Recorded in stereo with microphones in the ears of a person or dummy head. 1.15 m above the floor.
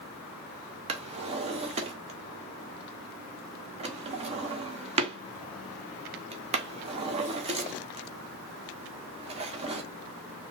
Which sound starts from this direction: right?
A drawer, at 0.9 s.